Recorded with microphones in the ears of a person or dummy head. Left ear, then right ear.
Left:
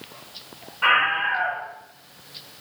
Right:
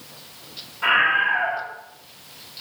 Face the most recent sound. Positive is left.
turn(degrees=80)